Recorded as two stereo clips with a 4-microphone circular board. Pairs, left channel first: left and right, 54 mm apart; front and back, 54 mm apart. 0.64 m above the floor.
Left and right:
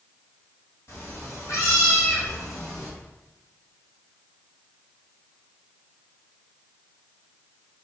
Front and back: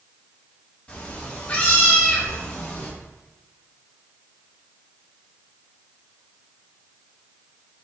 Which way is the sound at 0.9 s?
65° left.